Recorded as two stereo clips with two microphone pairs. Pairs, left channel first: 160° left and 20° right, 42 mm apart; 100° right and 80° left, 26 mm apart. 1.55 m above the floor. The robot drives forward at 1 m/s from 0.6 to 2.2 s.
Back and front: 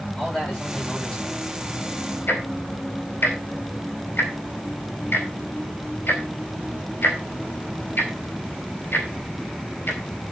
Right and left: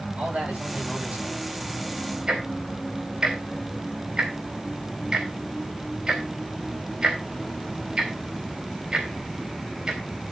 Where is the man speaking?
90° left, 9.5 m; by 1.4 s 95° left, 9.5 m.